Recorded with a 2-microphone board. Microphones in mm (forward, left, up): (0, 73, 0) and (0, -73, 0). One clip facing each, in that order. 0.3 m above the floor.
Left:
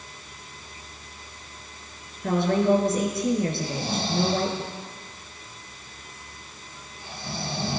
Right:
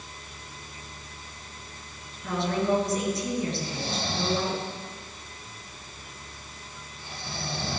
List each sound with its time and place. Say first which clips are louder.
2.2 s a woman speaking: left 5 dB; 55° left (ahead or behind), 4 m
3.6 s snoring: left 3 dB; 25° left (ahead or behind), 7.5 m